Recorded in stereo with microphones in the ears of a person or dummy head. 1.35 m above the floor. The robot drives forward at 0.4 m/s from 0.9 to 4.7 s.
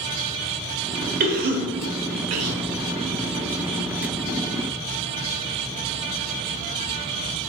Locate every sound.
1.2 s a cough: 45° right (ahead or behind), 0.7 m; by 2.6 s 80° right, 0.5 m